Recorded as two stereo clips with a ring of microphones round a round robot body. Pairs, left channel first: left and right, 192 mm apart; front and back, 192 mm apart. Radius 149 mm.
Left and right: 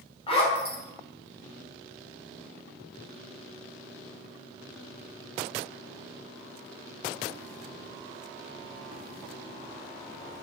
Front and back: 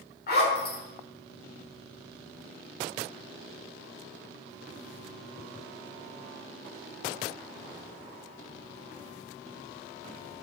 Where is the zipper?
30° left, 1.3 m.